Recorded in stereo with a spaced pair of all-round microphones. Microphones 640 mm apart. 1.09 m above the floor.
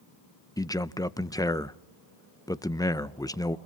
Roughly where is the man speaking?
Centre.